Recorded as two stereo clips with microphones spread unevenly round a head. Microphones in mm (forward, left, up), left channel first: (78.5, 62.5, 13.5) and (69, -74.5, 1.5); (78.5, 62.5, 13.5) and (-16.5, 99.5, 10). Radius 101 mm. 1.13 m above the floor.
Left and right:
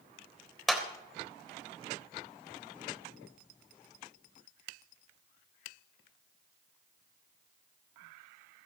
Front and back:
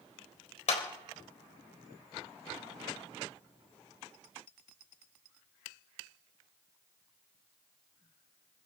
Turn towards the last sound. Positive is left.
turn(degrees=-5)